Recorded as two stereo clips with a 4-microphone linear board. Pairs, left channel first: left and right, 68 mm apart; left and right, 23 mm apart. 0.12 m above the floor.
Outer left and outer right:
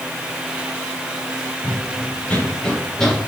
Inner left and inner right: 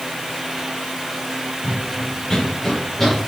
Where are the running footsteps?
25° left (ahead or behind), 4 m; by 3.3 s 5° left (ahead or behind), 3.5 m.